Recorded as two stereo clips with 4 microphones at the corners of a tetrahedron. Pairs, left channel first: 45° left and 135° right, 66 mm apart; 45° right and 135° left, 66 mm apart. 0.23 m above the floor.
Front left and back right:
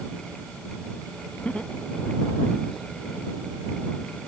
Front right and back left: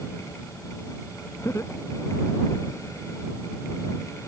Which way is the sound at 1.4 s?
20° right.